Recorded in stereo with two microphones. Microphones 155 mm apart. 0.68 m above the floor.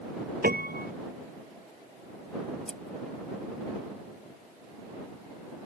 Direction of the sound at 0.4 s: 80° right.